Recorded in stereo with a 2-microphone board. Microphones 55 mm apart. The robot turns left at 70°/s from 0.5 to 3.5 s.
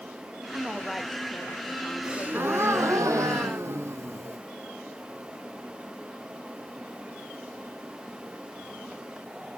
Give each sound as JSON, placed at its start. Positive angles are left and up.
{"t": 0.5, "sound": "a woman speaking", "azimuth_deg": -155, "distance_m": 1.4}
{"t": 2.0, "sound": "a gasp", "azimuth_deg": -20, "distance_m": 1.0}